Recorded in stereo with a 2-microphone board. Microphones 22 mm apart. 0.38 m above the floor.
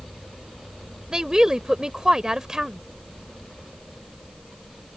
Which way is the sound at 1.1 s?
30° right (ahead or behind).